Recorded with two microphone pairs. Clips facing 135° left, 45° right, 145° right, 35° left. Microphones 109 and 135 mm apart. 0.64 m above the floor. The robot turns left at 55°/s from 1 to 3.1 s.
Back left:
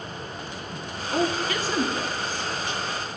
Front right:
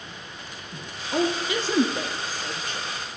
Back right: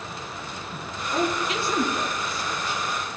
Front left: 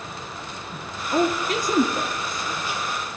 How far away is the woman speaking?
About 0.8 m.